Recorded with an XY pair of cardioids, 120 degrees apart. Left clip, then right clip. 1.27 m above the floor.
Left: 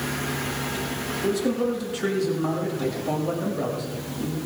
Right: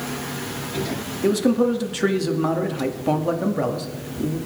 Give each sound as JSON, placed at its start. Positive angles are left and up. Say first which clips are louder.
{"t": 1.2, "sound": "a man speaking", "louder": "right 6 dB", "azimuth_deg": -40, "distance_m": 2.0}